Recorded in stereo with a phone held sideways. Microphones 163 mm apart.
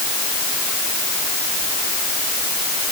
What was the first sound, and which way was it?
Only background noise.